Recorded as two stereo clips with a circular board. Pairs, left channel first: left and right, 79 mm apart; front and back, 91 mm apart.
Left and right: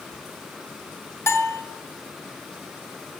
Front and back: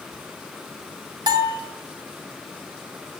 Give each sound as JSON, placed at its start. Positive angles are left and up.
{"t": 1.3, "sound": "a bell", "azimuth_deg": 145, "distance_m": 1.7}